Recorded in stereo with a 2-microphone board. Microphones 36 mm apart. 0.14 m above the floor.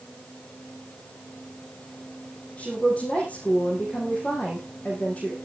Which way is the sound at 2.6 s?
35° left (ahead or behind).